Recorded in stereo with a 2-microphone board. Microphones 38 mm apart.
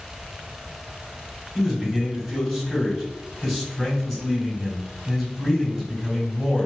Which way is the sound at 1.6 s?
5° left (ahead or behind).